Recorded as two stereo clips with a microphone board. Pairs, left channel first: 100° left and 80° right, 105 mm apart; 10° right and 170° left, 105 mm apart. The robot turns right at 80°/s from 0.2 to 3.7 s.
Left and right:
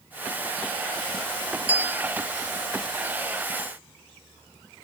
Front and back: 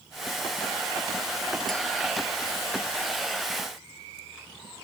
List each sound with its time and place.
1.7 s a bell: 95° right; by 2.1 s 60° right